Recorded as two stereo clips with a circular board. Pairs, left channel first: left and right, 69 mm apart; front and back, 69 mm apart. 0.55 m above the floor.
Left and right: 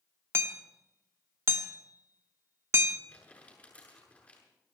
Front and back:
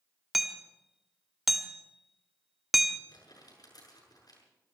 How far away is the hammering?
About 1.0 m.